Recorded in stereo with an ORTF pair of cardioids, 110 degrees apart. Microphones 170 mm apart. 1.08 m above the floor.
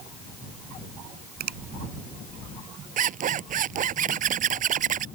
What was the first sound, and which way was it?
A finger snap, 65° right.